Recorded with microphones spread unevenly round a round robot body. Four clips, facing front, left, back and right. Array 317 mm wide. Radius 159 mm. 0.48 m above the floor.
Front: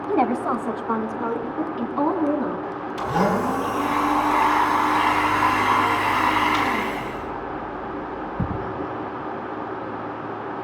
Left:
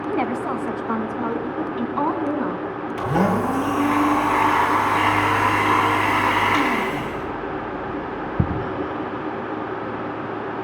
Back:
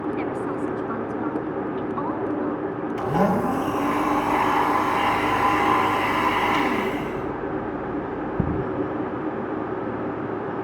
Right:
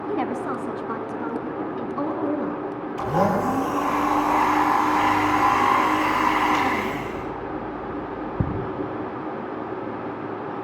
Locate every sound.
0.1 s a woman speaking: 20° left, 3.5 m; by 2.6 s 55° left, 4.5 m
3.0 s a blender: 105° left, 5 m